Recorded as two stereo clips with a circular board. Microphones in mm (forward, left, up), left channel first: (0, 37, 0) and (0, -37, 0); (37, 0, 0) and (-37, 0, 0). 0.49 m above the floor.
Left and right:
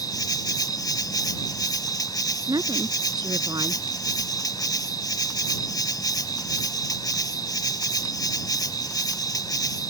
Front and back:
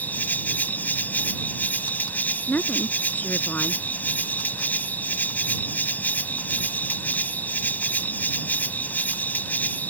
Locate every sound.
0.0 s an insect: 65° left
2.5 s a woman speaking: 65° right